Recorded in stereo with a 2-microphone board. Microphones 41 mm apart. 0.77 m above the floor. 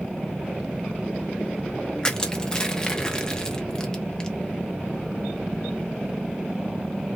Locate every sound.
2.0 s crushing: 20° left (ahead or behind), 0.6 m